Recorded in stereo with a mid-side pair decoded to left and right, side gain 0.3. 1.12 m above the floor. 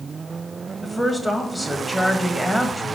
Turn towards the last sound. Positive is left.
turn(degrees=10)